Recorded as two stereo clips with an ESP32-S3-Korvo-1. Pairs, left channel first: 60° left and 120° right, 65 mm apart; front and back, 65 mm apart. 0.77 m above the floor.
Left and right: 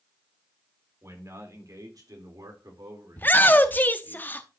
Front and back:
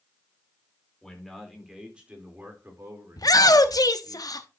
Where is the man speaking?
85° right, 3 m; by 4.2 s 155° right, 4 m.